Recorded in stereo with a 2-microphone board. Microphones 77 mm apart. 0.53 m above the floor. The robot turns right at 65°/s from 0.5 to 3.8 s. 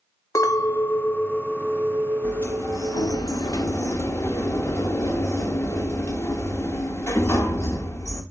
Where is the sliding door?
30° left, 0.5 m; by 8.2 s 130° left, 0.5 m.